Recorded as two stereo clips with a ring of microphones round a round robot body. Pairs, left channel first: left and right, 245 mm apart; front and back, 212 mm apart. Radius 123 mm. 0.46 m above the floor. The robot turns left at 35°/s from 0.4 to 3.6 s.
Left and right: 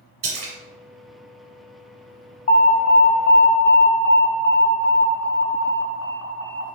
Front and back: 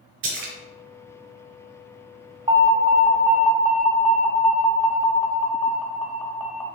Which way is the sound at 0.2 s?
150° right.